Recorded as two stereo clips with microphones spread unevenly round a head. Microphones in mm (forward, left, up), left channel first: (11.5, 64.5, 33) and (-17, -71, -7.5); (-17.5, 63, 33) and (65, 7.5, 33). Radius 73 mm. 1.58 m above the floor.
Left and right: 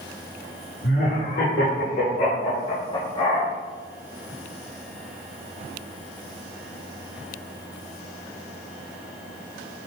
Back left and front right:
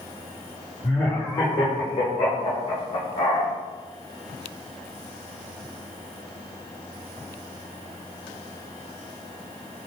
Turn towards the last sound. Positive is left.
turn(degrees=140)